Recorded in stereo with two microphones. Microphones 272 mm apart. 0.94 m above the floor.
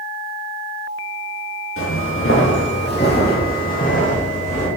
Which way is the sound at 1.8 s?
50° left (ahead or behind).